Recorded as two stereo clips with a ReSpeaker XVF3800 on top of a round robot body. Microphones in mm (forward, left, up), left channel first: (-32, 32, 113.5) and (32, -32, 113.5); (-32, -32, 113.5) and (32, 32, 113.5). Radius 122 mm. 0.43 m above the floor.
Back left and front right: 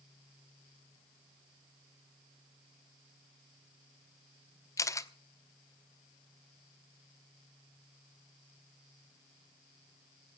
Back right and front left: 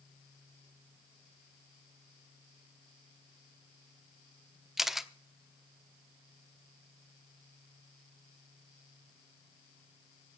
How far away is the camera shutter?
About 1.1 m.